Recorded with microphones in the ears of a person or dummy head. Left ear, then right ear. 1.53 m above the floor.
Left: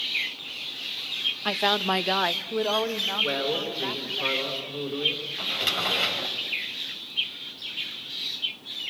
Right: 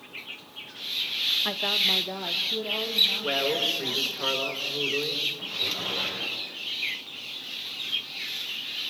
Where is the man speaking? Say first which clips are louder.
Right 1 dB; 5° right (ahead or behind), 4.5 m.